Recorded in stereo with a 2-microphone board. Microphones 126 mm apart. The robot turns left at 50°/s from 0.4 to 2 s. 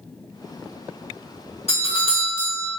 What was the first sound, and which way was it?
A doorbell, 55° left (ahead or behind).